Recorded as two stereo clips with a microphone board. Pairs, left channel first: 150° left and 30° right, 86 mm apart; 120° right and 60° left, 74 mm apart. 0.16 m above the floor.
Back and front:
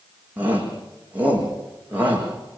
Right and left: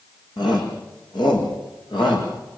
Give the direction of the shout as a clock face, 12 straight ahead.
3 o'clock.